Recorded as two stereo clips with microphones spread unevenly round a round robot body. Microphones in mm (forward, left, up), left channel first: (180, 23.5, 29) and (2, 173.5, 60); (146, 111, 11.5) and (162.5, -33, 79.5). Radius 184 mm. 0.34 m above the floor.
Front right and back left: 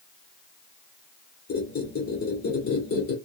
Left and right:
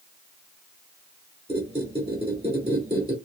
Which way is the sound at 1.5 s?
25° right.